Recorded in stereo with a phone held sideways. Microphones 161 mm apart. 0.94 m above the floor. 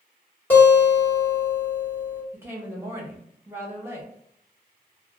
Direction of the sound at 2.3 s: 15° right (ahead or behind).